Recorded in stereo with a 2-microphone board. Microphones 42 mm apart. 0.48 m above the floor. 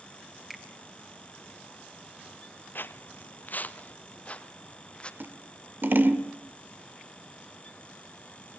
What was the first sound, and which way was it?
A finger snap, 5° right (ahead or behind).